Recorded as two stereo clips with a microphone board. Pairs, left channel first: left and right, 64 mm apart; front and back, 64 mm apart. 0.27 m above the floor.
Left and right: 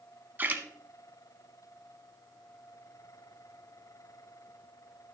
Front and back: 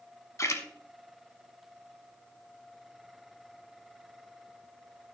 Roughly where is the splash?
Ahead right.